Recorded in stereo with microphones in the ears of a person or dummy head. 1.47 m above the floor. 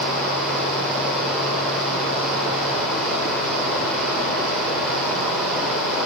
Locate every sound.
0.0 s running water: centre (ahead or behind), 3 m